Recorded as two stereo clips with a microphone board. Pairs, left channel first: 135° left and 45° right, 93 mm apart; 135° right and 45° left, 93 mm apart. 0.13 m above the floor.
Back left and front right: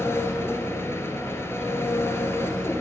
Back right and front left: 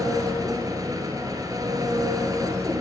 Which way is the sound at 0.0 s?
80° left.